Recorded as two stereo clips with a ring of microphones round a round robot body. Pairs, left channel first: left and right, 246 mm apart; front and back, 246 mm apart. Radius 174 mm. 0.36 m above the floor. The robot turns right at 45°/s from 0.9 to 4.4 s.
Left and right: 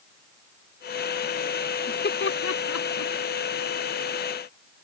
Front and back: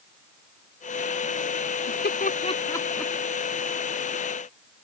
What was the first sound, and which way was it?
Laughter, 35° left.